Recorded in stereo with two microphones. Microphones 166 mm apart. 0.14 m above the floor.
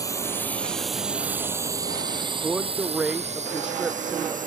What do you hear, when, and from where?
0.0 s a drone: 20° left (ahead or behind); by 4.5 s 50° right (ahead or behind)
2.4 s a man speaking: 5° right (ahead or behind)